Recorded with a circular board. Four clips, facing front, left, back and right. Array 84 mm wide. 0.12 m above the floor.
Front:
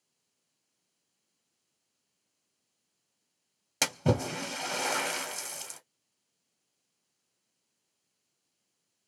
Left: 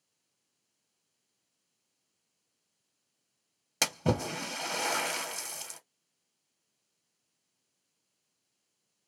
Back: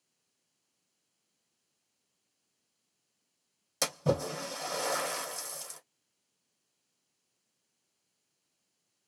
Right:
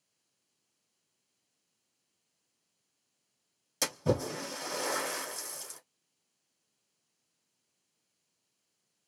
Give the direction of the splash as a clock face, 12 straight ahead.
10 o'clock.